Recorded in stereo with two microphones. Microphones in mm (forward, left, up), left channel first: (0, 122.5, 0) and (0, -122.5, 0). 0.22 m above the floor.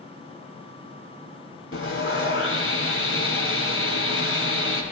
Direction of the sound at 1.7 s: 60° left (ahead or behind).